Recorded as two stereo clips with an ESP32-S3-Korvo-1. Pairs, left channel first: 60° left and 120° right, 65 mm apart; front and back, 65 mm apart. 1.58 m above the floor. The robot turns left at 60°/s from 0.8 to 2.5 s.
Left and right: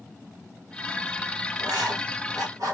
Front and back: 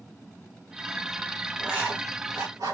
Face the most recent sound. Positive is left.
turn(degrees=-155)